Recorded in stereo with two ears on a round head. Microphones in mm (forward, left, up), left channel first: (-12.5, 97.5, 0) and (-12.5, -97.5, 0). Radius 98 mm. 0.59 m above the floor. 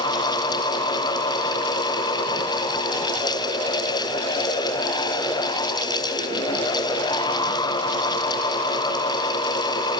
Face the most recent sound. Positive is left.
No sound to turn to.